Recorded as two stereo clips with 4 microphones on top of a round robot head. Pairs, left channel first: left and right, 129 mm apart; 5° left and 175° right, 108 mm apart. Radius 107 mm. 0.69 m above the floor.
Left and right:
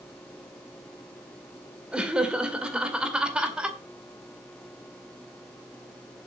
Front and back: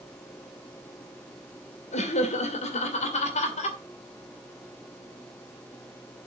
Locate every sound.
1.9 s laughter: 5° right, 2.5 m